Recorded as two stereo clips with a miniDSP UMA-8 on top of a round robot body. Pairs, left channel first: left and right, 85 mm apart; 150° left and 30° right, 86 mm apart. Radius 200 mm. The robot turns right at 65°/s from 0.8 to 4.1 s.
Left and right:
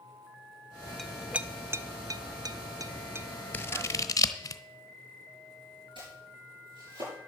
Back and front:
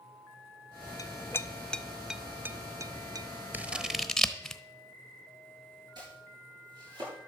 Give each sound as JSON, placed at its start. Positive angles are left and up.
{"t": 1.0, "sound": "a clink", "azimuth_deg": 175, "distance_m": 0.7}
{"t": 3.5, "sound": "scissors", "azimuth_deg": 30, "distance_m": 1.1}
{"t": 6.0, "sound": "chopping", "azimuth_deg": -70, "distance_m": 9.5}